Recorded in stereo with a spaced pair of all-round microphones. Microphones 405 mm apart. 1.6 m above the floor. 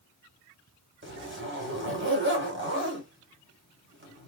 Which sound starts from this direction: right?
A zipper, at 1.0 s.